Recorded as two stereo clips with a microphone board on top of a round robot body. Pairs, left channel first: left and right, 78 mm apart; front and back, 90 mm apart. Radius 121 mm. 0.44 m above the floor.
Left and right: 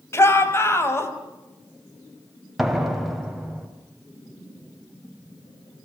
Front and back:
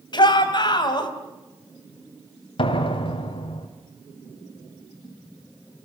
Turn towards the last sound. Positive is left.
turn(degrees=-5)